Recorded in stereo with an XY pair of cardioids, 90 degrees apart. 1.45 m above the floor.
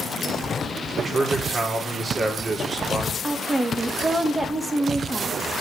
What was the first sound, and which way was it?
A man speaking, 40° right.